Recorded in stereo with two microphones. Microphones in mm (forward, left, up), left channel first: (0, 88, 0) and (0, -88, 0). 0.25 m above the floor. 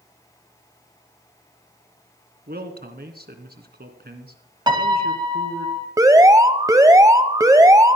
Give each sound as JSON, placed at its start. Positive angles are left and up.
{"t": 2.5, "sound": "a man speaking", "side_deg": -65, "distance_m": 2.5}
{"t": 4.7, "sound": "a piano", "side_deg": -25, "distance_m": 1.2}
{"t": 6.0, "sound": "an alarm", "side_deg": -20, "distance_m": 1.0}